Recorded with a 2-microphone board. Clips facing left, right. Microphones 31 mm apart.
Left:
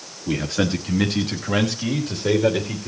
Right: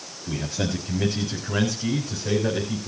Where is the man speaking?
90° left, 3 m; by 2.9 s 55° left (ahead or behind), 3.5 m.